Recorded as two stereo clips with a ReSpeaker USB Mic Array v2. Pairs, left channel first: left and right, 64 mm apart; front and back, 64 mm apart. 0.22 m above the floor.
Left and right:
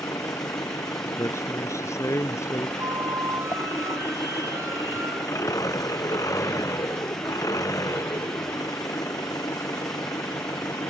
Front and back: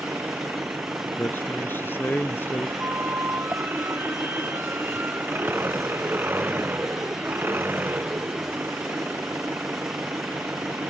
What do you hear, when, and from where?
0.0 s an engine running: 120° left
1.2 s a man speaking: 55° left
2.8 s a flute: 130° right